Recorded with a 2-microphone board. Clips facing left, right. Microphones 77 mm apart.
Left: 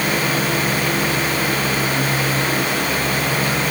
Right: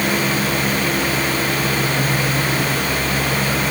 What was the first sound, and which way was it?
Only background noise.